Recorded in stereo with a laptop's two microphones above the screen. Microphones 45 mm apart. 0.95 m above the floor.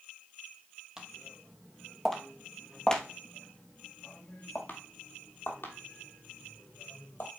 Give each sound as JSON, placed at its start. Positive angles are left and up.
{"t": 1.0, "sound": "footsteps", "side_deg": -15, "distance_m": 1.8}